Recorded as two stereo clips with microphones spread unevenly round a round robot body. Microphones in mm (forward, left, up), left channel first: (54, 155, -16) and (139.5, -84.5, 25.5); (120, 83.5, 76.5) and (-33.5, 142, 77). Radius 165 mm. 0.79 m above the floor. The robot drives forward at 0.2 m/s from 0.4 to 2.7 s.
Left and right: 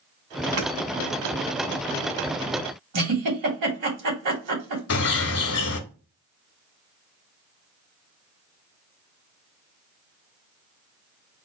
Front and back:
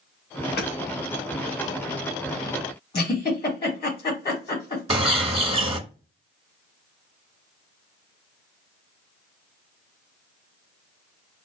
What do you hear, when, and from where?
0.6 s hammering: 55° right, 2.5 m; by 0.7 s 60° right, 2.5 m
2.9 s a giggle: 90° right, 2.5 m
4.9 s a bird: 100° left, 1.1 m